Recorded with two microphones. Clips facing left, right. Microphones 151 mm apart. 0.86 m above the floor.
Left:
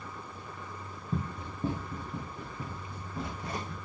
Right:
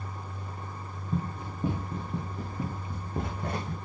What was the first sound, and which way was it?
Running footsteps, 5° left (ahead or behind).